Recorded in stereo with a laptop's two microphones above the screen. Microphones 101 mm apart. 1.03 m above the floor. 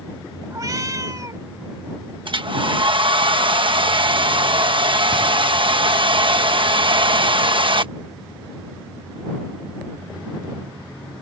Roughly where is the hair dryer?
Right.